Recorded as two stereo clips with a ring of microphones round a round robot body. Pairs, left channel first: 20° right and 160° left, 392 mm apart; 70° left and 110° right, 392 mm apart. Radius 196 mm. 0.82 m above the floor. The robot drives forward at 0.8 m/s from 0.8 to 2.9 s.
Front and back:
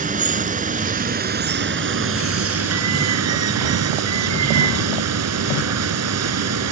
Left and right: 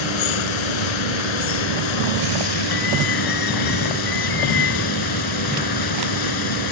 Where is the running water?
85° left; by 6.7 s 105° left.